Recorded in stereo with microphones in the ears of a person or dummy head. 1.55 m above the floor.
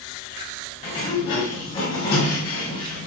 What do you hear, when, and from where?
0.8 s a sliding door: 25° left (ahead or behind), 1.9 m